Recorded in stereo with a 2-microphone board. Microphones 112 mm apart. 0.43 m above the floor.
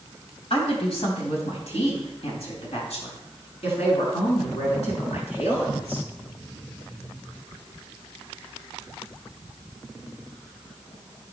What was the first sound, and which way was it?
A woman speaking, 65° left (ahead or behind).